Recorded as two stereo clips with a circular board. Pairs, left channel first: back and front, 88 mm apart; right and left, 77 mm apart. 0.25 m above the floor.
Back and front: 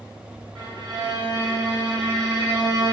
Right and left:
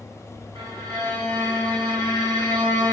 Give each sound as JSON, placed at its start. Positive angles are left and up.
{"t": 0.6, "sound": "a violin", "azimuth_deg": 95, "distance_m": 3.0}